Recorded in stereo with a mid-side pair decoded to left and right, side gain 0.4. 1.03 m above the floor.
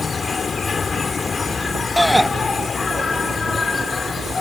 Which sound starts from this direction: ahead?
A shout, at 2.0 s.